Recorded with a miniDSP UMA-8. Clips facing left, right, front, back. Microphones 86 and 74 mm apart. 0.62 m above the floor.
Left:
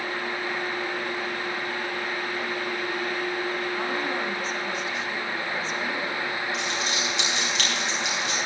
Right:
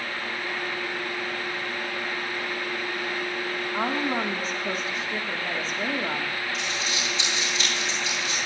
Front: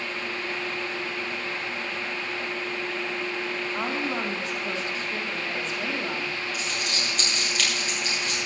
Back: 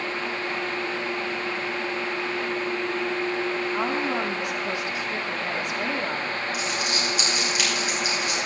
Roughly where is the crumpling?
Left.